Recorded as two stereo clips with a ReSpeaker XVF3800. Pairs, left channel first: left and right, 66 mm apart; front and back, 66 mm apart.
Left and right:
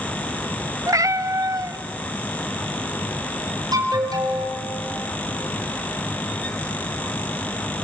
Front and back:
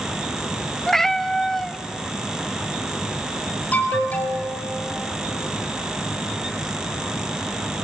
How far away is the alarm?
About 4.5 m.